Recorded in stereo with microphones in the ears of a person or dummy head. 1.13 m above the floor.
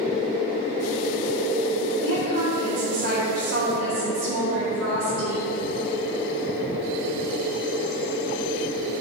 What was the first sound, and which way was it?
A woman speaking, 60° right (ahead or behind).